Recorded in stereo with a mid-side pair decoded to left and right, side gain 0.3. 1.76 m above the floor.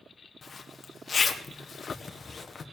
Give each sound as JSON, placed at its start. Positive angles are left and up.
{"t": 0.4, "sound": "a zipper", "azimuth_deg": 50, "distance_m": 1.6}